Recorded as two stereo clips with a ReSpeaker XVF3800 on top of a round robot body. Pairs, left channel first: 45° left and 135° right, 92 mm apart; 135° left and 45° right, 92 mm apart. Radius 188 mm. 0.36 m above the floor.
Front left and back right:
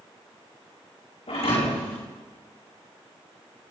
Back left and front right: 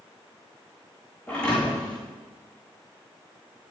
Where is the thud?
55° left, 7 m.